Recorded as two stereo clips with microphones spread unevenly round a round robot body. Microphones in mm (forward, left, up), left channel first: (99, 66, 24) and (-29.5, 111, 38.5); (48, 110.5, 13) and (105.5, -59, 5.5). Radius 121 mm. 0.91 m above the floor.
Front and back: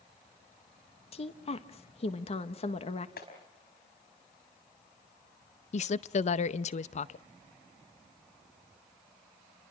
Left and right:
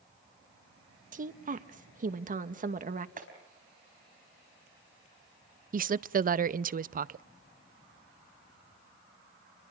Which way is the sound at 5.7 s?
40° right.